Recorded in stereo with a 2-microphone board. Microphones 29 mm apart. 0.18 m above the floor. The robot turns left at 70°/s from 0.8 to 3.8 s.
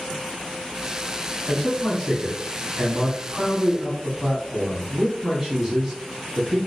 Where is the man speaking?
20° left (ahead or behind), 1.4 m; by 6.6 s 15° right (ahead or behind), 1.4 m.